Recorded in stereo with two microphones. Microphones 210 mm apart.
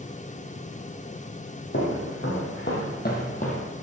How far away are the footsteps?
About 3 m.